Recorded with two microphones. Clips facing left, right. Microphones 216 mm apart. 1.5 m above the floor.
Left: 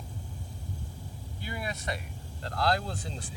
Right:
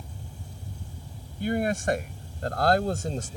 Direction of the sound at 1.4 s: 50° right (ahead or behind).